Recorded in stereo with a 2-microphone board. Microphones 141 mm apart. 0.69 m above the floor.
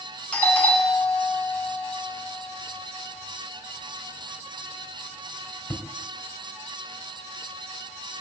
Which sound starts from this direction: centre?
A doorbell, at 0.3 s.